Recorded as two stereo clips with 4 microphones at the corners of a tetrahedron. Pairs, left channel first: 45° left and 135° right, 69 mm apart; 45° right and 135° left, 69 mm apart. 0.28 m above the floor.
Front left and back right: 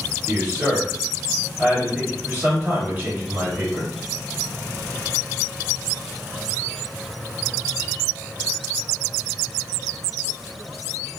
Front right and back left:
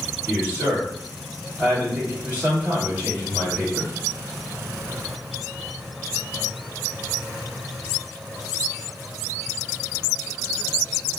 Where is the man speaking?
175° right, 1.7 m.